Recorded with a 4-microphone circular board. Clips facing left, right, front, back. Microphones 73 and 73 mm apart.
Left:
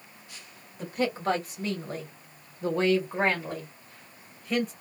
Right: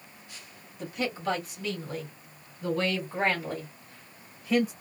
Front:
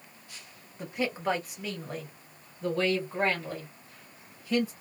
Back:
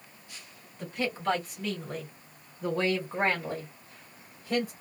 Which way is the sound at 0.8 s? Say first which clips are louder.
Left 3 dB, front 1 dB; 65° left.